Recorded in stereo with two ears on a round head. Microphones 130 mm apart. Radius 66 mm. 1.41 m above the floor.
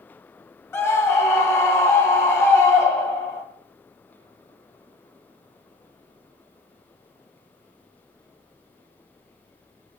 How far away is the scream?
About 1.8 m.